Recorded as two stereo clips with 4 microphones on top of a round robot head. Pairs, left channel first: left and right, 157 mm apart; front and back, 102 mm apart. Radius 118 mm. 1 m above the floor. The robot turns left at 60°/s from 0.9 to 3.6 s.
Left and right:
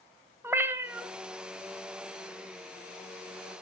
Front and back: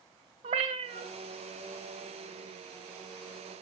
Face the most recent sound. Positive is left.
turn(degrees=35)